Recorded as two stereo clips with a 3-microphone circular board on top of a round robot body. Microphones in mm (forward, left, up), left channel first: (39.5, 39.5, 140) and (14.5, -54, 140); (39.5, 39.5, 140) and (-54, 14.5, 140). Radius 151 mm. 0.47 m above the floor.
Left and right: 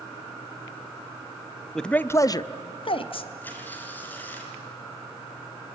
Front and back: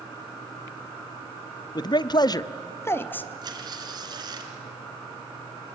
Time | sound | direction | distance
1.8 | a man speaking | 10° right | 1.0 m
3.4 | tearing paper | 150° left | 2.5 m